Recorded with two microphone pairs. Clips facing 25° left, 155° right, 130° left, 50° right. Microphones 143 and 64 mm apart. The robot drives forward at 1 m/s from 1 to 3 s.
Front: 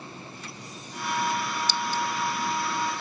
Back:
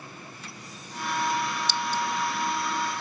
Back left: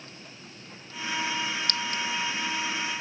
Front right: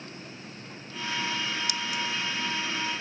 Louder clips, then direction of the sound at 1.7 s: Front 1 dB, back left 1 dB; 130° right.